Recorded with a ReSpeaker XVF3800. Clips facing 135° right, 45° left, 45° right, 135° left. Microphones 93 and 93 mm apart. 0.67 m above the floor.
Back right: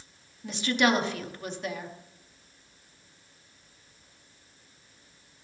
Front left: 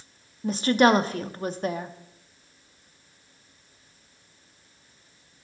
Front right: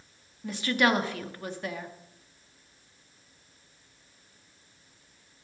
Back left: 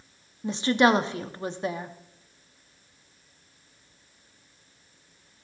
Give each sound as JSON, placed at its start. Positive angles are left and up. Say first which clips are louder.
{"t": 0.4, "sound": "a woman speaking", "louder": "front left 6 dB, back left 5 dB", "azimuth_deg": 80, "distance_m": 0.7}